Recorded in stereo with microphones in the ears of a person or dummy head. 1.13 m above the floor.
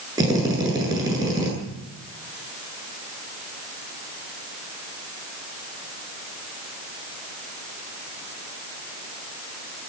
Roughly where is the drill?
Centre.